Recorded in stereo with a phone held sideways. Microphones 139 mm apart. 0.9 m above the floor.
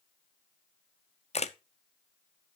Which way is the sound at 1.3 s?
50° left (ahead or behind).